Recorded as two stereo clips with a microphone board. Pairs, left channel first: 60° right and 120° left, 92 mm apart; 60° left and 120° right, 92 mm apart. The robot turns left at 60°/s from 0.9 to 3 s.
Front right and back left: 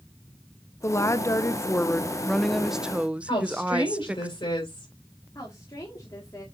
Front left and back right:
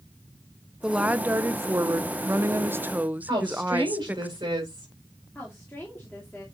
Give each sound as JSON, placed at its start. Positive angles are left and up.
{"t": 0.8, "sound": "a woman speaking", "azimuth_deg": -50, "distance_m": 0.5}
{"t": 3.3, "sound": "a woman speaking", "azimuth_deg": -80, "distance_m": 4.5}
{"t": 5.3, "sound": "a woman speaking", "azimuth_deg": -15, "distance_m": 2.0}